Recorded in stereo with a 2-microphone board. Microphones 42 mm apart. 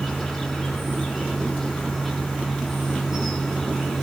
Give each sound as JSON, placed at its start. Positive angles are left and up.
{"t": 0.0, "sound": "an insect", "side_deg": 0, "distance_m": 3.0}